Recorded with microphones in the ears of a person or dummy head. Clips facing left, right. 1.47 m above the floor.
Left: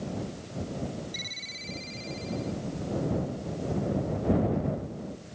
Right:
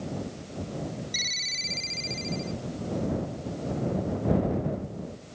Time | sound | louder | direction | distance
1.1 | a ringtone | right 1 dB | 80° right | ?